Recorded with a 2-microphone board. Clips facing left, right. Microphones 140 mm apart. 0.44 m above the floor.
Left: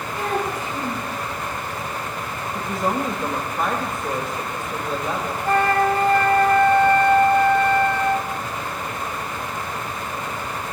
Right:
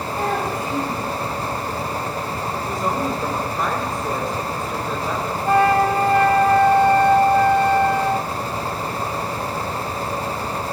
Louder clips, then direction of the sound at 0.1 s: Right 1 dB; 50° right (ahead or behind).